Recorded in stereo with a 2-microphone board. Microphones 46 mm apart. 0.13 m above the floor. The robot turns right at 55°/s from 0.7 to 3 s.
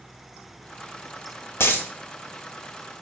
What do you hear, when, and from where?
1.6 s a dropped coin: 70° left (ahead or behind), 0.5 m; by 1.9 s 55° left (ahead or behind), 0.5 m